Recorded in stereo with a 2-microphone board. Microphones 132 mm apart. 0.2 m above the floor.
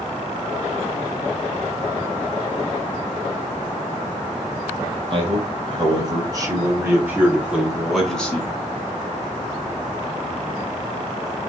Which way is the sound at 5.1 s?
45° right (ahead or behind).